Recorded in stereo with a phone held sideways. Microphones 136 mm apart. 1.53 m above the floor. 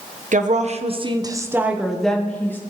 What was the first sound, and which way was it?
A woman speaking, 70° right (ahead or behind).